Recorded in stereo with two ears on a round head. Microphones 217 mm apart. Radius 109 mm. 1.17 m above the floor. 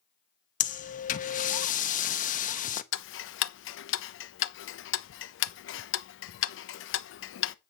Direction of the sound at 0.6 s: 30° left (ahead or behind).